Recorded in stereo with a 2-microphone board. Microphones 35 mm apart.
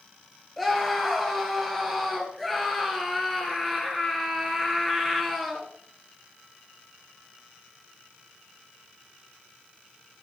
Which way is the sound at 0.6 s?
5° left (ahead or behind).